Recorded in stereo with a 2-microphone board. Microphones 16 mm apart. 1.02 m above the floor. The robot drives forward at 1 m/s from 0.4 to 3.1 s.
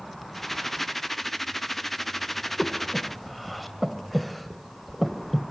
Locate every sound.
2.6 s breathing: 5° left (ahead or behind), 1.3 m